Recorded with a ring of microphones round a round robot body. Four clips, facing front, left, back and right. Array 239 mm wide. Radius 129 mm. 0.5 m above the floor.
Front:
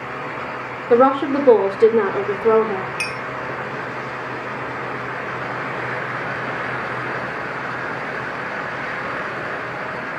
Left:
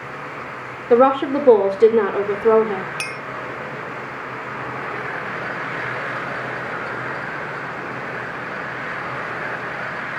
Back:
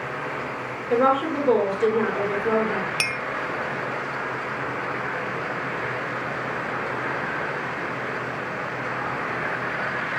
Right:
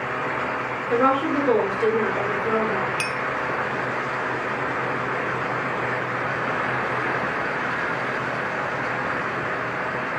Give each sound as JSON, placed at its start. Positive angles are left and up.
{"t": 0.9, "sound": "a woman speaking", "azimuth_deg": 45, "distance_m": 2.0}
{"t": 3.0, "sound": "a clink", "azimuth_deg": 180, "distance_m": 1.2}